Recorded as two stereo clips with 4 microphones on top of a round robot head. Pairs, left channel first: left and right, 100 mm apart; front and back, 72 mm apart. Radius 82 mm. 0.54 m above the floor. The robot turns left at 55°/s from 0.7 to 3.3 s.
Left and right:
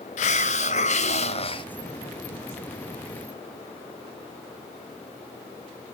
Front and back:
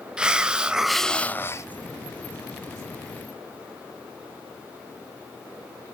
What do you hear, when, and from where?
0.2 s a hiss: 105° left, 0.8 m; by 1.7 s 50° left, 0.8 m